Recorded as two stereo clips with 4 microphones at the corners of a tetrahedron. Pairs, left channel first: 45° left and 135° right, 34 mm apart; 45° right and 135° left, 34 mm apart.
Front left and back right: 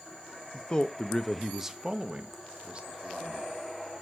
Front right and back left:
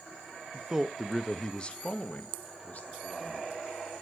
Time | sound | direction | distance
0.5 | a man speaking | 80° left | 0.6 m